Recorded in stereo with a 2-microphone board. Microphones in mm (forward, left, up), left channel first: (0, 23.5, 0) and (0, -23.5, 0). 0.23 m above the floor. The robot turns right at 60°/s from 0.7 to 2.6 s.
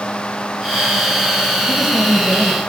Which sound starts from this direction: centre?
A woman speaking, at 1.7 s.